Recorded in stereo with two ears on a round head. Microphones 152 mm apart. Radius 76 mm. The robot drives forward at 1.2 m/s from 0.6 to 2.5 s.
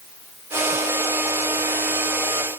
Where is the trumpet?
No trumpet in this recording.